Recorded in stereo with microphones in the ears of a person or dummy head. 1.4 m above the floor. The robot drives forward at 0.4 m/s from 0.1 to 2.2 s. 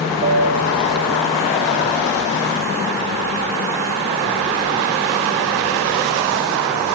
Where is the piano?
55° right (ahead or behind), 2 m; by 2.4 s 70° right (ahead or behind), 1.8 m.